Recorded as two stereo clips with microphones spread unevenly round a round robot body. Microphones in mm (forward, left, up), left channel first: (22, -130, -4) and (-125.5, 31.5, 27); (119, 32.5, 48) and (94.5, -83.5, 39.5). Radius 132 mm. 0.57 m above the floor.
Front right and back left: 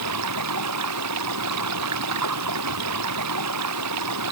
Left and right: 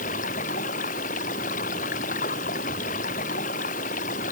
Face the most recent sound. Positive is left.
turn(degrees=120)